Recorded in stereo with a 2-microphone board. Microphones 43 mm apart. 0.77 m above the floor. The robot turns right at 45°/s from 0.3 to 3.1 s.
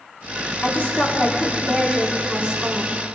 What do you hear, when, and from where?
0.6 s a woman speaking: 130° left, 2 m; by 3.0 s 125° right, 2 m